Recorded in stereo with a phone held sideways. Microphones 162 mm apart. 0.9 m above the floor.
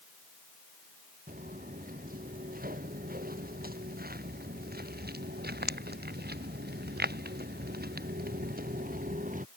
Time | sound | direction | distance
1.3 | footsteps | 60° right (ahead or behind) | ?